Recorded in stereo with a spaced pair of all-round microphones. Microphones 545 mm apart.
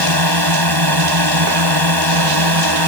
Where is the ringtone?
No ringtone in this recording.